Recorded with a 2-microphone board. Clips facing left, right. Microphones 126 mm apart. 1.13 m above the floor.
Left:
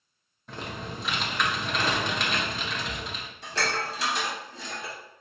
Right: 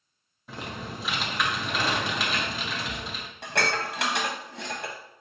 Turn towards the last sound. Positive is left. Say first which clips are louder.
# right 2 dB
turn(degrees=-70)  # may be behind; listen again after turning